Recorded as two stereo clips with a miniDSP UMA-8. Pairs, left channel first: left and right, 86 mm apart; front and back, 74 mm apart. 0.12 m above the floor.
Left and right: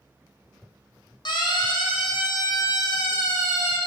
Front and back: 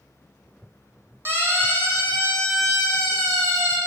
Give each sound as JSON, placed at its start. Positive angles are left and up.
{"t": 1.2, "sound": "a siren", "azimuth_deg": 120, "distance_m": 5.0}